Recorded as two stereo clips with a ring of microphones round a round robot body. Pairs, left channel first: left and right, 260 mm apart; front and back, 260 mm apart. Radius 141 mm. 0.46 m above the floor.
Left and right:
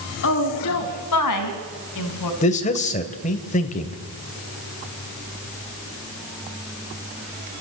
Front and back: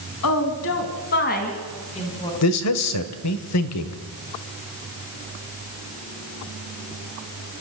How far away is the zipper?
I don't hear a zipper.